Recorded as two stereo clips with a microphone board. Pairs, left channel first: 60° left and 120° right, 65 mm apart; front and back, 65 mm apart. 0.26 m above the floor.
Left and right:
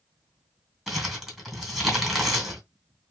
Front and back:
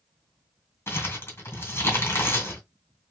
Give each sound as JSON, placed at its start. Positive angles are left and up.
{"t": 0.9, "sound": "crumpling", "azimuth_deg": -30, "distance_m": 2.0}